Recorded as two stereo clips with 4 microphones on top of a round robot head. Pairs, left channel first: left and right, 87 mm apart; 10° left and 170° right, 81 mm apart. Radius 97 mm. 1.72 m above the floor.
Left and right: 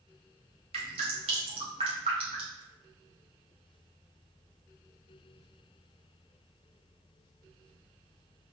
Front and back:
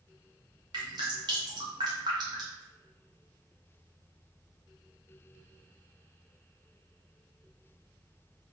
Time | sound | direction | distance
0.7 | dripping | 115° right | 0.6 m